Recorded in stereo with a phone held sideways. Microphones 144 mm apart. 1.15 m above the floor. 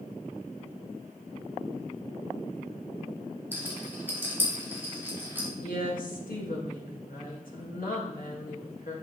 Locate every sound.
3.5 s a rattle: 15° right (ahead or behind), 3 m
5.6 s a woman speaking: 75° left (ahead or behind), 2 m